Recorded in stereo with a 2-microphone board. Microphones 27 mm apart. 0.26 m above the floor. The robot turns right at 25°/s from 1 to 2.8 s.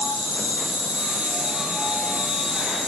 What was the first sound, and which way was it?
An insect, 95° right.